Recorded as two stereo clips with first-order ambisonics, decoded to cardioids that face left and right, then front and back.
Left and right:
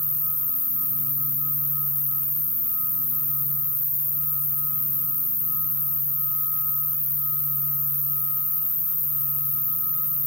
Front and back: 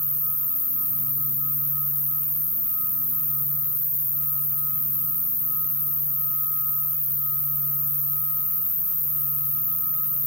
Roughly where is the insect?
Ahead left.